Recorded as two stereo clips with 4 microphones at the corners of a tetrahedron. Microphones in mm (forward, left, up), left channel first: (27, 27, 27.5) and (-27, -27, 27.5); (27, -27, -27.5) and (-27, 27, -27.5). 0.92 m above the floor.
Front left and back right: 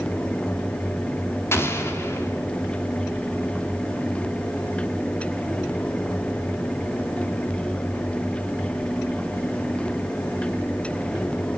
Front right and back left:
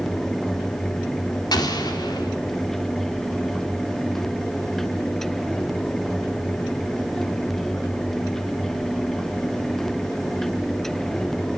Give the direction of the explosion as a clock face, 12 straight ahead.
12 o'clock.